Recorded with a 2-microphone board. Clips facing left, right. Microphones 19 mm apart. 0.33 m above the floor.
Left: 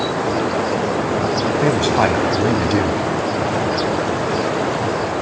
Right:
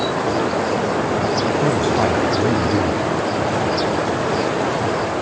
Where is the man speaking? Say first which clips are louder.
Left 4 dB; 40° left (ahead or behind), 2 m.